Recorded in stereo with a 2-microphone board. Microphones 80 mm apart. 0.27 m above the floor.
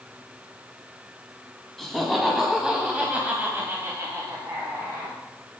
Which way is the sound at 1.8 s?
5° left (ahead or behind).